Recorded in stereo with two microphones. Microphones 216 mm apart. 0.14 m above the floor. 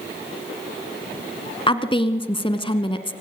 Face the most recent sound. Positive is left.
turn(degrees=25)  # may be behind; listen again after turning